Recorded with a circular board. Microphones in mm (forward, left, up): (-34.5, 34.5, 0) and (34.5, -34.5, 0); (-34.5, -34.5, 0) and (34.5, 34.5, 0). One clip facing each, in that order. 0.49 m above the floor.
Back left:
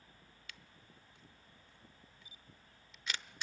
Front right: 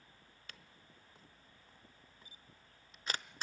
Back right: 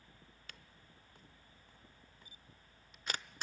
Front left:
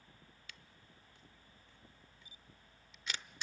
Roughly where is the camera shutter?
Right.